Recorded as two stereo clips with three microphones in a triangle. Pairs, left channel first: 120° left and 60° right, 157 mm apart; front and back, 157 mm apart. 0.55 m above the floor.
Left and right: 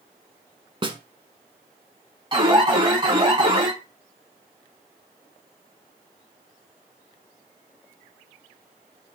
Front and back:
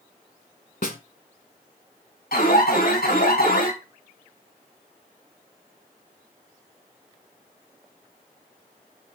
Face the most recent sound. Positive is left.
turn(degrees=-5)